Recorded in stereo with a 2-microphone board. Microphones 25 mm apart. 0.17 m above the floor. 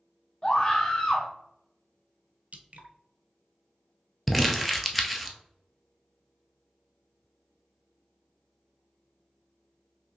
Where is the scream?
20° left (ahead or behind), 1.2 m.